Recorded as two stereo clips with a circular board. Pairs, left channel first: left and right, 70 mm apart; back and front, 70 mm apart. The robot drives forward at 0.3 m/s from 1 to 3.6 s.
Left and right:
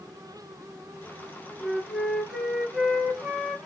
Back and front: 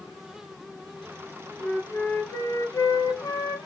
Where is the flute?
175° right, 0.6 m.